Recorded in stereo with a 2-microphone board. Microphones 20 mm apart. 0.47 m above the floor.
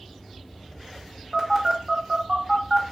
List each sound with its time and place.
1.3 s a phone buzzing: 20° right (ahead or behind), 1.4 m